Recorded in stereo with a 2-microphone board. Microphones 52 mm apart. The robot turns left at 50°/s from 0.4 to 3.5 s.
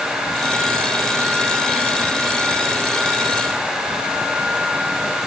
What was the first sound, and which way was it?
Only background noise.